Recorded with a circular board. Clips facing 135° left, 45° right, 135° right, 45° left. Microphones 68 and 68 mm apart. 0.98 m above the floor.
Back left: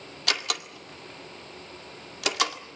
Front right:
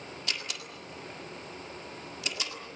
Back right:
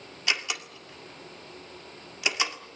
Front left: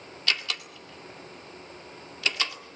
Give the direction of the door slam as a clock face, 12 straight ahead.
7 o'clock.